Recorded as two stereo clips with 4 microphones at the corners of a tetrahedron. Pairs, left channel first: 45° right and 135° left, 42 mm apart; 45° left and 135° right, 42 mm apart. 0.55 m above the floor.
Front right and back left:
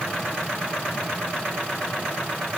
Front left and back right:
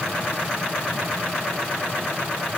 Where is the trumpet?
No trumpet in this recording.